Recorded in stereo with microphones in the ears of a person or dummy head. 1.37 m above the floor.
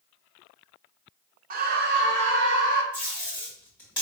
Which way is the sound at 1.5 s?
45° right (ahead or behind).